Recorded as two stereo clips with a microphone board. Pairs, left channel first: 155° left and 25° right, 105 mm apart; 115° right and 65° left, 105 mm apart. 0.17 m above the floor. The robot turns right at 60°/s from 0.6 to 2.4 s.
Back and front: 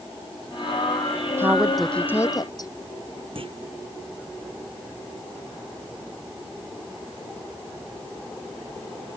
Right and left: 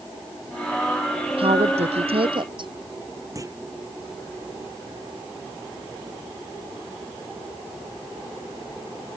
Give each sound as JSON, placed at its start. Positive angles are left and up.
{"t": 1.4, "sound": "a woman speaking", "azimuth_deg": 45}
{"t": 3.4, "sound": "a clunk", "azimuth_deg": 10}